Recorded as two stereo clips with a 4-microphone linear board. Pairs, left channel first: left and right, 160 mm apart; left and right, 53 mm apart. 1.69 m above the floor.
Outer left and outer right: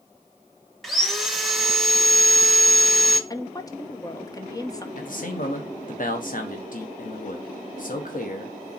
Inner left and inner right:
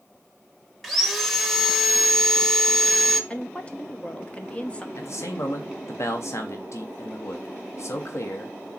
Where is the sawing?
Centre (ahead or behind), 1.1 m.